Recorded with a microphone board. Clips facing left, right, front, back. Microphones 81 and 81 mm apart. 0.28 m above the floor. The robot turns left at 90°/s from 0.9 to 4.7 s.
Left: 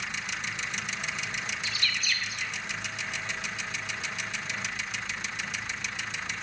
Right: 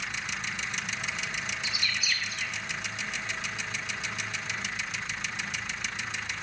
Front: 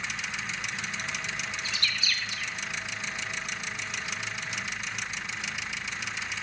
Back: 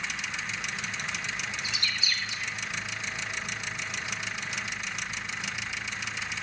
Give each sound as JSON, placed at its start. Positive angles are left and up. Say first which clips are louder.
{"t": 1.6, "sound": "a bird", "louder": "even, even", "azimuth_deg": -130, "distance_m": 0.8}